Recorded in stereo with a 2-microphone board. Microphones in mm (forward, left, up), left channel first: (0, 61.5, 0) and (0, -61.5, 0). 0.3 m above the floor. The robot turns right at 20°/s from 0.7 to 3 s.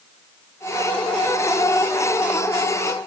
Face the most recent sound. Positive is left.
No sound to turn to.